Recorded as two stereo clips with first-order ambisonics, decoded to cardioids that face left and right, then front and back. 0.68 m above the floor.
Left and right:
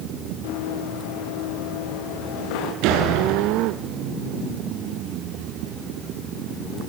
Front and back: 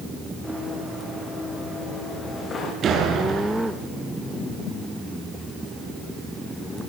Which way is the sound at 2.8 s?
120° right.